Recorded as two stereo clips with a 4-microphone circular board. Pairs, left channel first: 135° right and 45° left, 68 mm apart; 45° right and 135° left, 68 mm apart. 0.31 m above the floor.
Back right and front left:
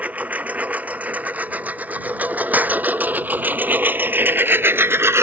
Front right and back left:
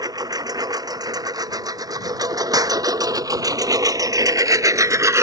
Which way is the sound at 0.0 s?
115° left.